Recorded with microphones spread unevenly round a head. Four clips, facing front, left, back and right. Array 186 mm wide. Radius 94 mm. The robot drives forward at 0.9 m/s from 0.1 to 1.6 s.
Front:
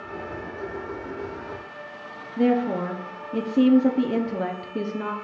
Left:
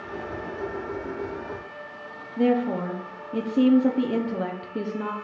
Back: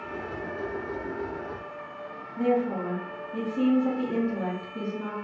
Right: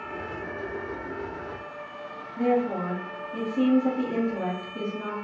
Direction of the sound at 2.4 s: 35° left.